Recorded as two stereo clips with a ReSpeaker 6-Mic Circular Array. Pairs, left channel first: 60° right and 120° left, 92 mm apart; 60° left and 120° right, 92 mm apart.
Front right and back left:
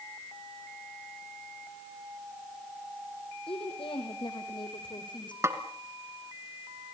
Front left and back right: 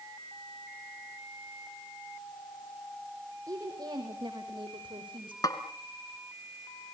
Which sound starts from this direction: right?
A woman speaking, at 3.5 s.